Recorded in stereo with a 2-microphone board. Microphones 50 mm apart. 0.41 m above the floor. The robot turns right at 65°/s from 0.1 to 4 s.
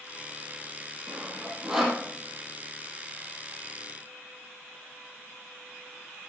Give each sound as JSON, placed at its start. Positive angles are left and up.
{"t": 1.1, "sound": "sawing", "side_deg": -55, "distance_m": 3.5}